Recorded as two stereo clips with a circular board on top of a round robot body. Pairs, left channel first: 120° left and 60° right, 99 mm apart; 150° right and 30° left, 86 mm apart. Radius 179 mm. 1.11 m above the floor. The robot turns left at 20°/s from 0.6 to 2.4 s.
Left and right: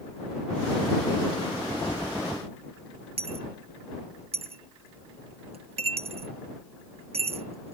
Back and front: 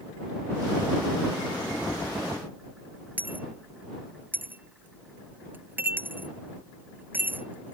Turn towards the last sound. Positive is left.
turn(degrees=-40)